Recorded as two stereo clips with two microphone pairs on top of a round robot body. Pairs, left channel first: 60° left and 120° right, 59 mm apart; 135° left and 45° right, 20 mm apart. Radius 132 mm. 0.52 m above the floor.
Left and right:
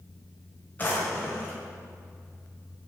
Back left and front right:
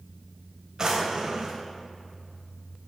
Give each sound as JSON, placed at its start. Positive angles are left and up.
{"t": 0.8, "sound": "a drawer", "azimuth_deg": 5, "distance_m": 1.9}